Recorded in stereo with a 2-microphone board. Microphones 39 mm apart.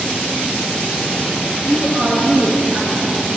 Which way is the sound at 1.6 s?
40° right (ahead or behind).